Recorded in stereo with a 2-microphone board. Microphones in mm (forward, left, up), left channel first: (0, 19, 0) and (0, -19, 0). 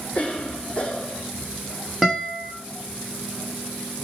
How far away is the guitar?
About 4 m.